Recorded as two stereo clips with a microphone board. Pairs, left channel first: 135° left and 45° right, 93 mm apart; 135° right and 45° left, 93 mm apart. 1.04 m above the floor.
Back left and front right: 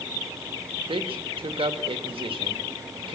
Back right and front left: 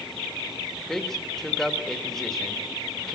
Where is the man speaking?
50° right, 2.0 m.